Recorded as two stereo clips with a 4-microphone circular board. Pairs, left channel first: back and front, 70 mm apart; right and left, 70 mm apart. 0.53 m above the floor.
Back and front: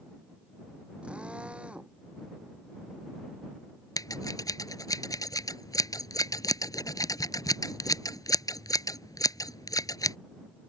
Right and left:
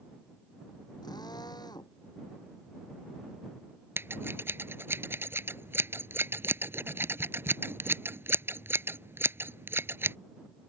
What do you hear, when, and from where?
1.0 s a drill: 75° right
4.0 s scissors: 145° left